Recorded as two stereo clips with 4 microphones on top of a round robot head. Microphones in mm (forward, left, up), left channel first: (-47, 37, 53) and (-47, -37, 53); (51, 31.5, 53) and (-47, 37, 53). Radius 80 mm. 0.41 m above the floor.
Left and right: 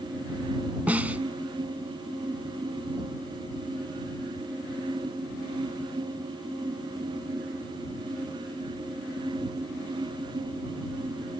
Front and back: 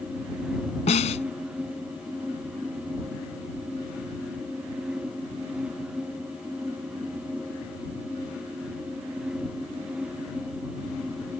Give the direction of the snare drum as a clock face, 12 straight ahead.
1 o'clock.